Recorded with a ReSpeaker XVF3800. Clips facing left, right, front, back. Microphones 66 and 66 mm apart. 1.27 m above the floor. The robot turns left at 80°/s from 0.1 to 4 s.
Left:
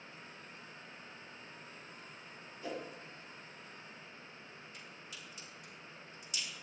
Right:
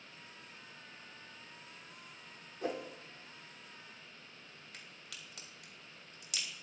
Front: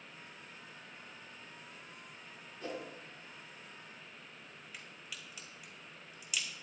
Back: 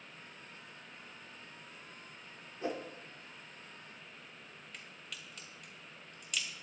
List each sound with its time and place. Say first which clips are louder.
2.6 s a whoosh: right 4 dB, back 4 dB; 115° right, 3.5 m; by 2.9 s 135° right, 3.5 m
4.7 s a crack: left 2 dB, even; 85° right, 3.5 m